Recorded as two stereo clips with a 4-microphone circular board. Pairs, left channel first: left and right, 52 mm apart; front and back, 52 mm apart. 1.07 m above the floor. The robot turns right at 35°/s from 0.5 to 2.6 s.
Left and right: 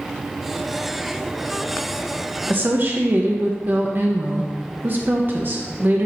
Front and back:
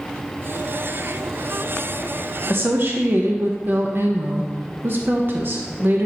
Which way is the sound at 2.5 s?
140° right.